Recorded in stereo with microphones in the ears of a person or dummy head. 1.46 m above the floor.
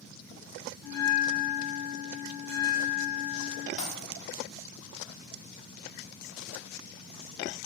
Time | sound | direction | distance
0.8 | a bell | 30° left (ahead or behind) | 1.3 m
3.8 | a dropped coin | 50° left (ahead or behind) | 1.8 m